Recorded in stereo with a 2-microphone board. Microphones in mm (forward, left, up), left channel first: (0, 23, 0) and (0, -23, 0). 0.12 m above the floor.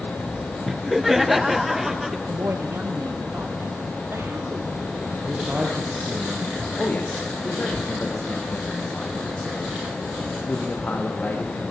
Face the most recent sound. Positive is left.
turn(degrees=40)  # may be behind; listen again after turning